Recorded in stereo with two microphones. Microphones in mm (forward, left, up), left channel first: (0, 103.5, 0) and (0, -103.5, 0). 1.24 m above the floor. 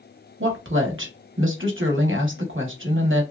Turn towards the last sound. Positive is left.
turn(degrees=-75)  # may be behind; listen again after turning